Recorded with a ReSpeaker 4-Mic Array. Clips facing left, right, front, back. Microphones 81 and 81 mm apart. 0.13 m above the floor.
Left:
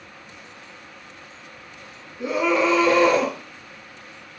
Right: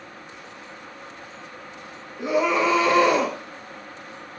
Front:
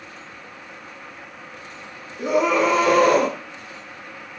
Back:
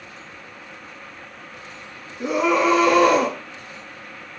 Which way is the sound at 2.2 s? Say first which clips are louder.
Even, even; 25° right.